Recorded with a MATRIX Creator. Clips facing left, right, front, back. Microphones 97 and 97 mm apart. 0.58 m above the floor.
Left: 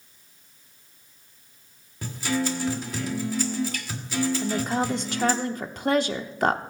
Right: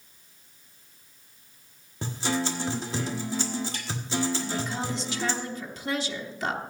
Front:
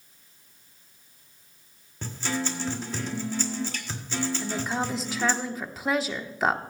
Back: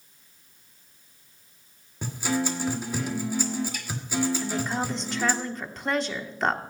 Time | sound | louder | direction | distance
2.0 | a guitar | left 2 dB, back 3 dB | 115° right | 1.4 m
4.4 | a woman speaking | left 6 dB, back 1 dB | 85° left | 0.9 m